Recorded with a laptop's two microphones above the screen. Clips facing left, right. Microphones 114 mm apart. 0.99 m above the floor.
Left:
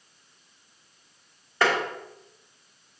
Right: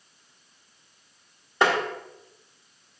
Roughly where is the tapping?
Right.